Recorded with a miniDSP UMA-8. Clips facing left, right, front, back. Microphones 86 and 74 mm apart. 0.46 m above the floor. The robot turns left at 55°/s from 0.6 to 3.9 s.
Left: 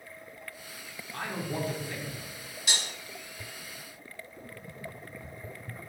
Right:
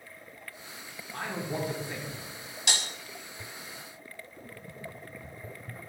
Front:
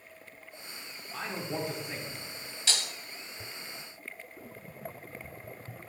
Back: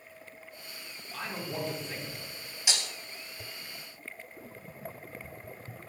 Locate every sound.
1.1 s a man speaking: 20° right, 0.7 m; by 2.3 s 85° right, 0.7 m
2.7 s breaking glass: 105° right, 0.6 m; by 2.9 s 115° right, 0.6 m